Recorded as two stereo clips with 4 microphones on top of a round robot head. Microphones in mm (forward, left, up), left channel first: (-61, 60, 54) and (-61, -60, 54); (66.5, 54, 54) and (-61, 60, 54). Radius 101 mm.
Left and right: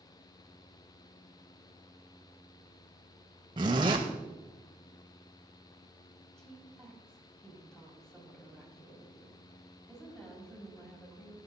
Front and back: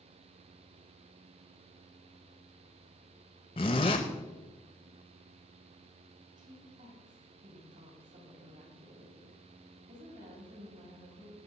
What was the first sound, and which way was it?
A zipper, 40° right.